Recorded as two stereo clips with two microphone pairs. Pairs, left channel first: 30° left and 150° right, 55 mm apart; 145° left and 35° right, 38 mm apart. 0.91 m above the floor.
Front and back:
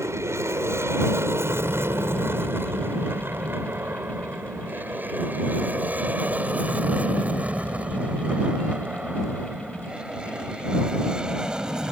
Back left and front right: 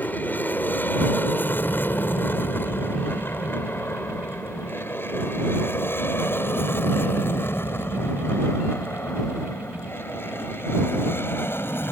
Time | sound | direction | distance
0.0 | an aircraft | straight behind | ?